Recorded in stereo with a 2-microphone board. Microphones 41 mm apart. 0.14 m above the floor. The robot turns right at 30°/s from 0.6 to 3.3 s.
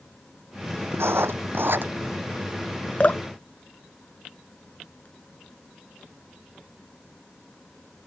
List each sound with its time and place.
0.9 s writing: 80° right; by 1.9 s 55° right (ahead or behind)
3.0 s dripping: 35° left (ahead or behind); by 5.1 s 40° left (ahead or behind)